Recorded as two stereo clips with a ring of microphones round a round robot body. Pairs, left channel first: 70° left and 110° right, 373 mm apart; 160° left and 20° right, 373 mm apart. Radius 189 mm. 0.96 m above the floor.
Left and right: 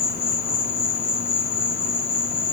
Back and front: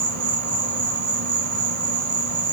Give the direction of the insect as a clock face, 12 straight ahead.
12 o'clock.